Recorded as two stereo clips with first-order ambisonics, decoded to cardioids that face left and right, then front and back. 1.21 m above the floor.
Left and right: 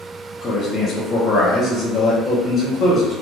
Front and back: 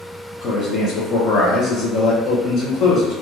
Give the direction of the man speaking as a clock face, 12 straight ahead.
11 o'clock.